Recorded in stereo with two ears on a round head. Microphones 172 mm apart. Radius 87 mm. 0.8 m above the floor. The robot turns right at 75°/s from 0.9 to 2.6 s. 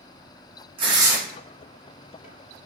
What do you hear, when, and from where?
0.8 s tearing paper: 25° right (ahead or behind), 0.6 m; by 1.2 s 5° right (ahead or behind), 0.6 m